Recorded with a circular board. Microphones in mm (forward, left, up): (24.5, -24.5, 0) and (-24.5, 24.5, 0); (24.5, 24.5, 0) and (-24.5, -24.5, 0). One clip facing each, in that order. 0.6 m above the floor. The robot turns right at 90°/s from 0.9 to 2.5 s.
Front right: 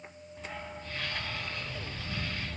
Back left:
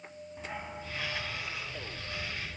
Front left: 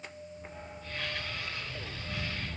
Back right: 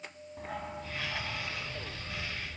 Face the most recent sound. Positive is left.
turn(degrees=-5)